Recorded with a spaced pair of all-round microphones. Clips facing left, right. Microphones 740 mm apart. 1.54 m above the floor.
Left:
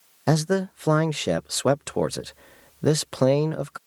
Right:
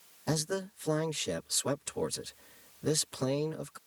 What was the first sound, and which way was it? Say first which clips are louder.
A man speaking: left 11 dB; 80° left.